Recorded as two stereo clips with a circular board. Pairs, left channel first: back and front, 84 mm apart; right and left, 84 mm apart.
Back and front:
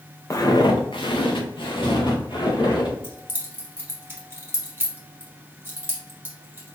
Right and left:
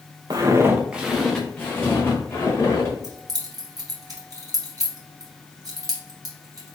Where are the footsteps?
125° left, 1.0 m; by 2.9 s 145° right, 3 m.